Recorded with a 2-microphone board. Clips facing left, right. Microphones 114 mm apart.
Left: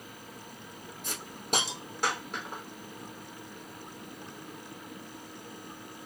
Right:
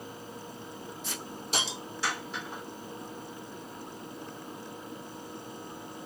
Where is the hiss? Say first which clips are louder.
Left 6 dB; 55° left (ahead or behind), 2 m.